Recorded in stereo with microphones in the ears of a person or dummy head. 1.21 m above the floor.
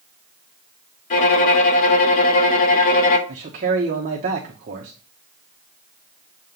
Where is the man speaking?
40° right (ahead or behind), 0.9 m.